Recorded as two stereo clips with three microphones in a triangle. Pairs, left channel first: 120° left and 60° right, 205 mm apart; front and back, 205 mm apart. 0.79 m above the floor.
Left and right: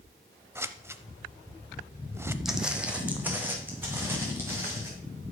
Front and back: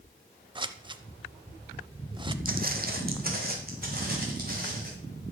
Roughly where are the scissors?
Behind right.